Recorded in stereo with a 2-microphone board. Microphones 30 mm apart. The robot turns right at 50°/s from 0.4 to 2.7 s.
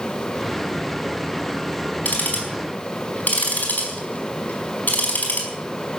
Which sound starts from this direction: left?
Ticking, at 2.0 s.